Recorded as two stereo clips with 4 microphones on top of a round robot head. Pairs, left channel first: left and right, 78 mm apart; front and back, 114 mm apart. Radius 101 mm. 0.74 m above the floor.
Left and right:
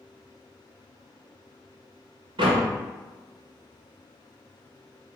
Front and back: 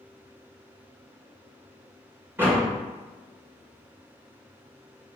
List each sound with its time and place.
2.4 s a door slam: 105° right, 1.7 m